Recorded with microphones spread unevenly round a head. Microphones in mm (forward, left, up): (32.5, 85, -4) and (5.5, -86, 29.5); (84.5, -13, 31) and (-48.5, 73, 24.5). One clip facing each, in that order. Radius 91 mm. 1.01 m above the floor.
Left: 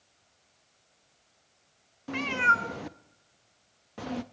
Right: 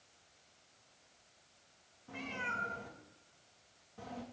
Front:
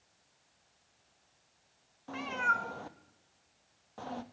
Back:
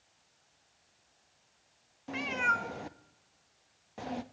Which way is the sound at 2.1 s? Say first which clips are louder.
Left 13 dB, back 2 dB; 75° left.